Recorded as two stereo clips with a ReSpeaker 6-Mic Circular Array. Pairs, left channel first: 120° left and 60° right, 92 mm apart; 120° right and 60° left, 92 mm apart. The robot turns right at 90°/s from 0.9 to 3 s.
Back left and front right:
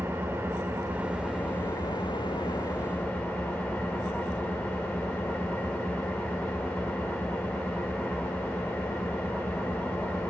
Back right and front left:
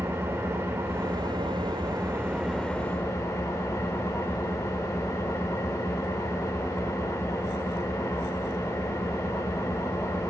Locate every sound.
0.0 s an engine running: 5° left, 1.5 m; by 10.3 s 165° right, 1.5 m